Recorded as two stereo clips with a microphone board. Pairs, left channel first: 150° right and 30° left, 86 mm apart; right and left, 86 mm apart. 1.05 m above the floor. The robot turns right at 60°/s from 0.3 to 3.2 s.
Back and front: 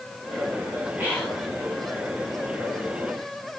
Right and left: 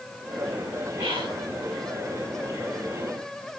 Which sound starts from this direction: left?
Whispering, at 1.0 s.